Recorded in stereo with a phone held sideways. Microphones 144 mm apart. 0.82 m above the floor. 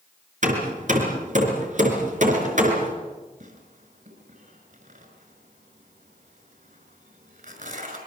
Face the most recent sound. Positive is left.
turn(degrees=-65)  # may be behind; listen again after turning